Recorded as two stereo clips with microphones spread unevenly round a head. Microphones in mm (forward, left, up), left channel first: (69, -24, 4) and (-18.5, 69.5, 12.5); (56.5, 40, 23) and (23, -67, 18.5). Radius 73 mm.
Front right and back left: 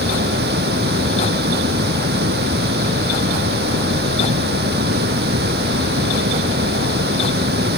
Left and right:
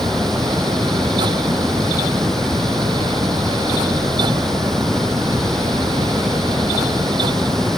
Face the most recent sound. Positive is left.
turn(degrees=160)